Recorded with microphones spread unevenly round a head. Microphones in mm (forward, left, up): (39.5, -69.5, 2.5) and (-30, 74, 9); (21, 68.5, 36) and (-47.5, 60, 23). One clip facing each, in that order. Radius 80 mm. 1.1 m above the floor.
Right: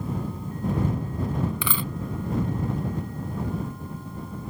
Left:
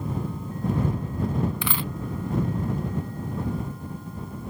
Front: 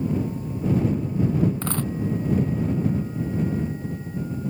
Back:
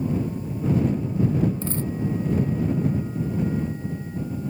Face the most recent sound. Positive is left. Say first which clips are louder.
# even, front 1 dB
turn(degrees=-55)